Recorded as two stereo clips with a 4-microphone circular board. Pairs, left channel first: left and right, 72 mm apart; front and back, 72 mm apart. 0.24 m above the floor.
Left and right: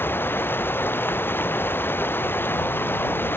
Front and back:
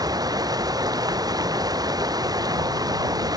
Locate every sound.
0.0 s running water: 150° left